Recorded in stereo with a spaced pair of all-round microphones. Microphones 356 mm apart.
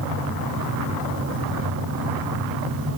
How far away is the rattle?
No rattle in this recording.